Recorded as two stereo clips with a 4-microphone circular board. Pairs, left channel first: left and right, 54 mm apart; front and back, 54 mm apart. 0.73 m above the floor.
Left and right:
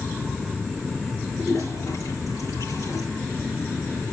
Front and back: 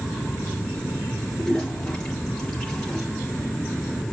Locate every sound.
1.4 s a toilet flushing: 80° left, 6.5 m